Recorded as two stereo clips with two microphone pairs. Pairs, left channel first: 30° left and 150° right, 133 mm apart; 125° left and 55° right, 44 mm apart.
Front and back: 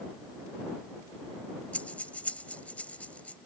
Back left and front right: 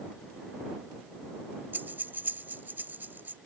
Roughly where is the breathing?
Ahead right.